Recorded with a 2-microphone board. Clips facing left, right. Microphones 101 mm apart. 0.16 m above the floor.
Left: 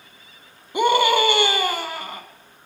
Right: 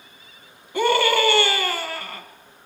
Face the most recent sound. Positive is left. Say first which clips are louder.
# left 2 dB
turn(degrees=20)  # may be behind; listen again after turning